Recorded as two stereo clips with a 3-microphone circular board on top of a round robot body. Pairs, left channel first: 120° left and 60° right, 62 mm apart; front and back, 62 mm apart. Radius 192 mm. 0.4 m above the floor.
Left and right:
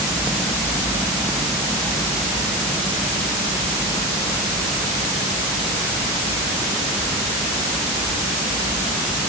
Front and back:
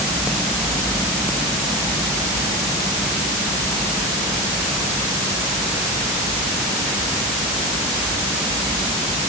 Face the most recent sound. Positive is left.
No sound to turn to.